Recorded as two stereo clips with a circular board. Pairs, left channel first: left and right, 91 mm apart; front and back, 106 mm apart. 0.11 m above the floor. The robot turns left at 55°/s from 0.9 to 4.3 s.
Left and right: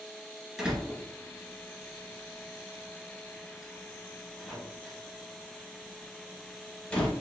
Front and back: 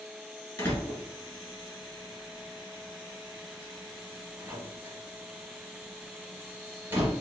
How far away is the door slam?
About 1.3 m.